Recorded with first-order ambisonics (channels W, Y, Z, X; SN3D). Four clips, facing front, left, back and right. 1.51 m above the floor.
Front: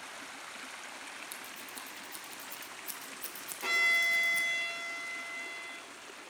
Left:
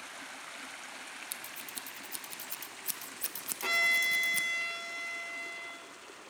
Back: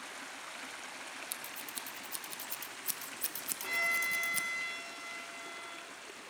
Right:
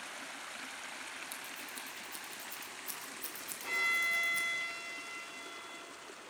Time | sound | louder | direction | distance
1.3 | scissors | left 1 dB, back 1 dB | 125° left | 0.7 m
3.6 | a violin | left 4 dB, front 5 dB | 60° left | 1.7 m